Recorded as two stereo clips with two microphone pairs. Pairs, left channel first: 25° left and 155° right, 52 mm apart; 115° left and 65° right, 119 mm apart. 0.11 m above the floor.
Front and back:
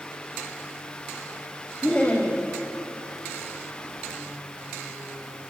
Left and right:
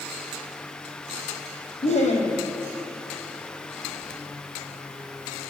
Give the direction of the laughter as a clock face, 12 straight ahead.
9 o'clock.